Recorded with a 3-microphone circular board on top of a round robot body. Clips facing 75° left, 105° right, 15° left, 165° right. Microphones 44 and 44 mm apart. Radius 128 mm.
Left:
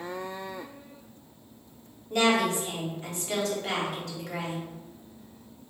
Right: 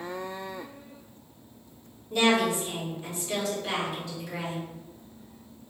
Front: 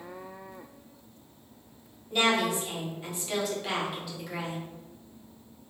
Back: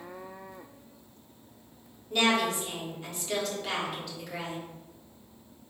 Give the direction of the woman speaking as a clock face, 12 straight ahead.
9 o'clock.